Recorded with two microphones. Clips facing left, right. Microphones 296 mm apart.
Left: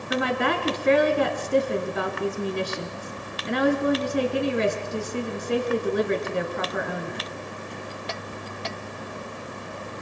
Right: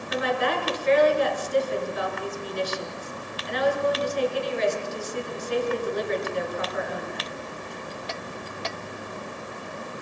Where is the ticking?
No ticking in this recording.